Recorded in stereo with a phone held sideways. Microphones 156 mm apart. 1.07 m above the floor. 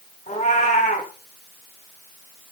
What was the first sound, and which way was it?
A cat meowing, 45° left (ahead or behind).